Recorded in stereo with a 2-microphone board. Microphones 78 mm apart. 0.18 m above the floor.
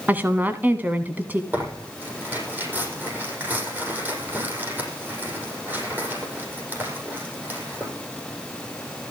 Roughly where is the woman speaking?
Right.